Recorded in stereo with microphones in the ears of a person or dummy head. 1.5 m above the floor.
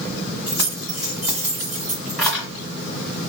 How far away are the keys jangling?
About 1.6 m.